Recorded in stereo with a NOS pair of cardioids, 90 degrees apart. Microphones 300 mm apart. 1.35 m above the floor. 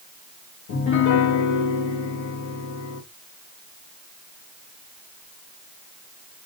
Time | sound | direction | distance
0.7 | a piano | 70° left | 1.2 m